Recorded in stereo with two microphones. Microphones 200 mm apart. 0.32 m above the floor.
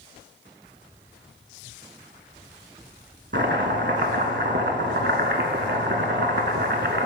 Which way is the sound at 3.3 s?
65° right (ahead or behind).